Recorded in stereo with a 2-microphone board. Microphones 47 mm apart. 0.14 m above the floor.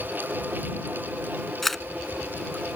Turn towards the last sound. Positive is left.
turn(degrees=5)  # may be behind; listen again after turning